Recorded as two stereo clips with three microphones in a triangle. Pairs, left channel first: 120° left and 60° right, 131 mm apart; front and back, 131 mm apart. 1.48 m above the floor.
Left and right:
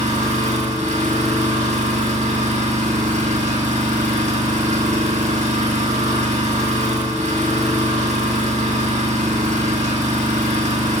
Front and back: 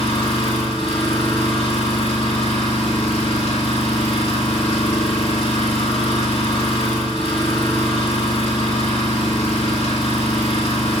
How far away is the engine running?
About 2 m.